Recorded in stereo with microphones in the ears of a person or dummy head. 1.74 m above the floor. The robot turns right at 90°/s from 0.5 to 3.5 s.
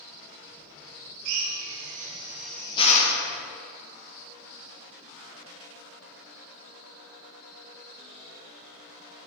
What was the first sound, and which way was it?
A drill, 70° right (ahead or behind).